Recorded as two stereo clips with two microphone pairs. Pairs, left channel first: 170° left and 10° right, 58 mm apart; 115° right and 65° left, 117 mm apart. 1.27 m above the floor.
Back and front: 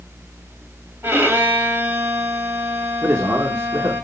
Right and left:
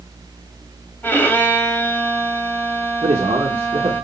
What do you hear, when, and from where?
1.0 s a violin: 45° right, 1.5 m
3.0 s a man speaking: 25° left, 1.2 m